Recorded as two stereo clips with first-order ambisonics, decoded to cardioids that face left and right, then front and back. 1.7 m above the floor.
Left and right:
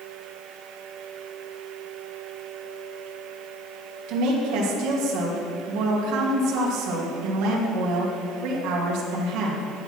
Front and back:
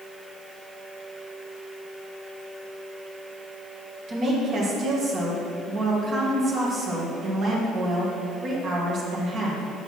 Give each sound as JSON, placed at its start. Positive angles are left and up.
{"t": 4.1, "sound": "a woman speaking", "azimuth_deg": -120, "distance_m": 2.0}